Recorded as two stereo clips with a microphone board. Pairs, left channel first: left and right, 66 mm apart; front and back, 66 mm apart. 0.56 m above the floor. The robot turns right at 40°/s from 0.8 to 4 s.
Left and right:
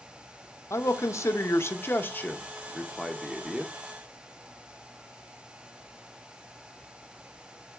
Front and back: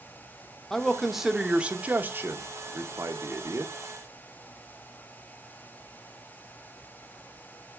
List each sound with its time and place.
0.7 s a man speaking: 80° left, 0.8 m; by 3.7 s 160° right, 0.8 m